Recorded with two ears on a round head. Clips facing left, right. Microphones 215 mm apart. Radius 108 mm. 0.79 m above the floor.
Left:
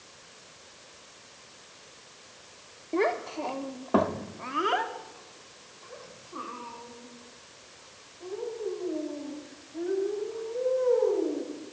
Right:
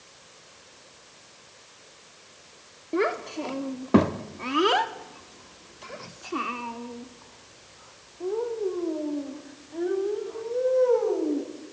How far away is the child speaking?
About 1.4 m.